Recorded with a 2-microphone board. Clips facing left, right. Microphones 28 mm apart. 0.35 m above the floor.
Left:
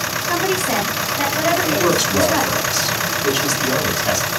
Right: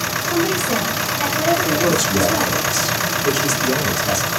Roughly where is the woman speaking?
Left.